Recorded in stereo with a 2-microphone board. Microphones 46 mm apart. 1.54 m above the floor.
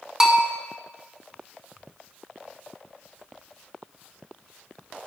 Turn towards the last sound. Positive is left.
turn(degrees=-15)  # may be behind; listen again after turning